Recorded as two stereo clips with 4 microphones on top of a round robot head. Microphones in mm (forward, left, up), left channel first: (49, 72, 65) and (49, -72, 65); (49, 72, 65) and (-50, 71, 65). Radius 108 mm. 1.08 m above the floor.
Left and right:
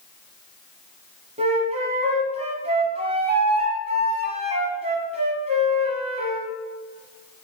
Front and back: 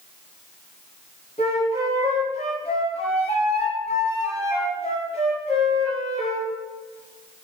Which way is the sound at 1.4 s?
45° right.